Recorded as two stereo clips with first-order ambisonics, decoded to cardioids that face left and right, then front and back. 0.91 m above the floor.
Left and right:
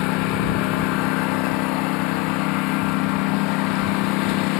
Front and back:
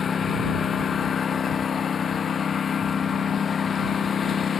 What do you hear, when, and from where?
0.0 s a lawn mower: 65° left